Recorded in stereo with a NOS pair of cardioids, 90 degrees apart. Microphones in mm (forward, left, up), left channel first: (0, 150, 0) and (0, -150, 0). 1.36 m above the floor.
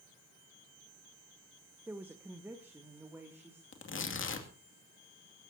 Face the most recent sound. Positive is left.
turn(degrees=40)